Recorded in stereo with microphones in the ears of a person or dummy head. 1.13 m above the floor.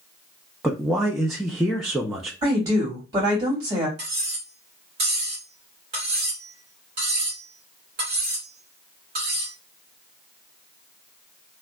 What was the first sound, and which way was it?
A man speaking, 5° right (ahead or behind).